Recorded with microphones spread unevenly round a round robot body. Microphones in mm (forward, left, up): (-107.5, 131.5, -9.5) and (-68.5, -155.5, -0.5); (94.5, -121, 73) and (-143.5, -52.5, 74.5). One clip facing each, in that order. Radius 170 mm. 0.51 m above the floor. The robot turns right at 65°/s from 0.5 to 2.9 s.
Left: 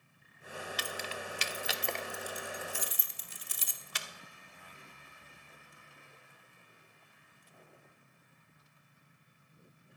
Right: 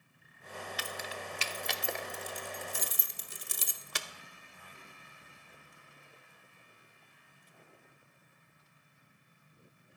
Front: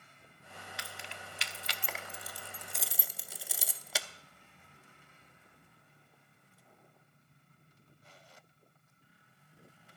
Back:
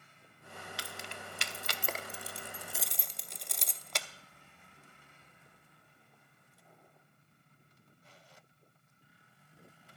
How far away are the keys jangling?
About 0.8 m.